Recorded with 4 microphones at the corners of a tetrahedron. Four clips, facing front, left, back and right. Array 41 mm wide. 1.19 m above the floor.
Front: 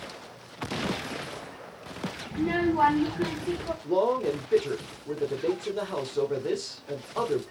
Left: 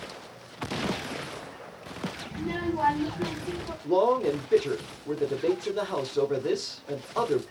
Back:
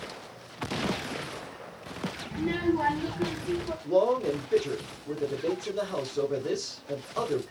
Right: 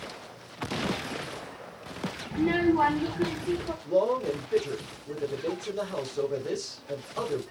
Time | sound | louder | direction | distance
2.3 | a child speaking | right 8 dB, front 2 dB | 80° right | 0.5 m
3.8 | a man speaking | left 3 dB, back 1 dB | 70° left | 1.3 m